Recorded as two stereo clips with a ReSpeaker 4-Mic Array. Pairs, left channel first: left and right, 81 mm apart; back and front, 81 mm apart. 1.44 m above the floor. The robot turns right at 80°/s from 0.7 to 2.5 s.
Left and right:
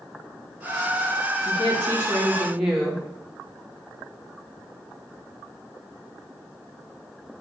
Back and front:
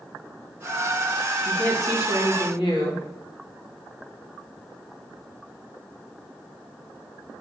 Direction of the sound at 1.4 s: 100° left.